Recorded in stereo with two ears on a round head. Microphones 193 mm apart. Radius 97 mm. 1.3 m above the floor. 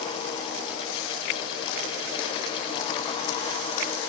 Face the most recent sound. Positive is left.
No sound to turn to.